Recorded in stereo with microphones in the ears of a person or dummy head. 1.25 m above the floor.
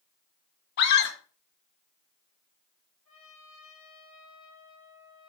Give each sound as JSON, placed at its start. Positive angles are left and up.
{"t": 0.8, "sound": "a scream", "side_deg": 60, "distance_m": 1.7}
{"t": 3.0, "sound": "a trumpet", "side_deg": 35, "distance_m": 4.0}